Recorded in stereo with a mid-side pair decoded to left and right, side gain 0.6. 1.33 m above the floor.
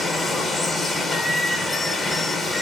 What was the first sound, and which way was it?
Running water, 15° left.